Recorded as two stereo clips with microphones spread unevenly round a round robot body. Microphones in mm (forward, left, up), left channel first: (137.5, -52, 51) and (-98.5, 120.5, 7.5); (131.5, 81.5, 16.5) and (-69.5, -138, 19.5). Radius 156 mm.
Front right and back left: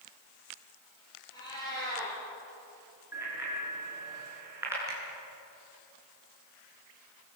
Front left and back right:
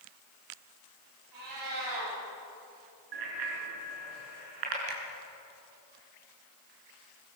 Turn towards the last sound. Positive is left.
turn(degrees=-135)